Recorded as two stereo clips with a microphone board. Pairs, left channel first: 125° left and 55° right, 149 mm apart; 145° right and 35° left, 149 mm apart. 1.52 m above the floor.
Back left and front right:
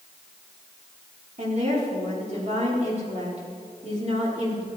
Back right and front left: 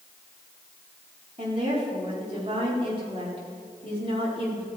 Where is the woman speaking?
15° right, 4 m.